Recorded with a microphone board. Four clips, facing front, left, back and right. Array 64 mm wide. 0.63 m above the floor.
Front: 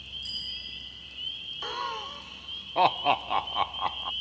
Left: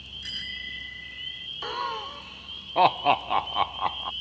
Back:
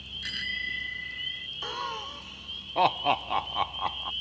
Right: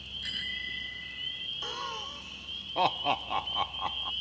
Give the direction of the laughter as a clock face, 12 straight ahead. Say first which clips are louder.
Left 8 dB, front 1 dB; 9 o'clock.